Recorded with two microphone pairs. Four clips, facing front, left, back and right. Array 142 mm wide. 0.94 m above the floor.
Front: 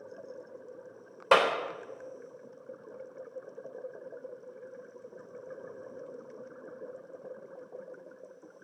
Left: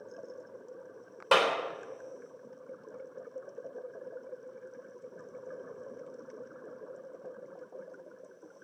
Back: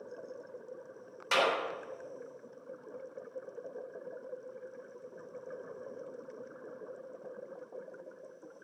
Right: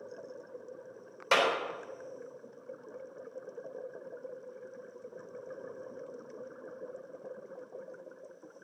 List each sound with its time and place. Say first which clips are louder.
1.3 s a clap: left 2 dB, front 6 dB; 40° left, 3.5 m